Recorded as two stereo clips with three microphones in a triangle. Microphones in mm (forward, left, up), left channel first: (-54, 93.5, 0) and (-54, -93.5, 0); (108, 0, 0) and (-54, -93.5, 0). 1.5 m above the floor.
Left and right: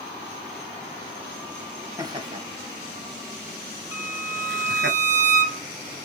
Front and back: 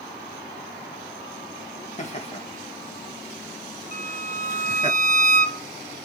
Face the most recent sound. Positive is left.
turn(degrees=-20)